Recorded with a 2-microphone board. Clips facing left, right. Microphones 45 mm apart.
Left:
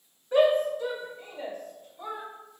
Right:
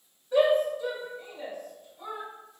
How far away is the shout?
About 1.1 m.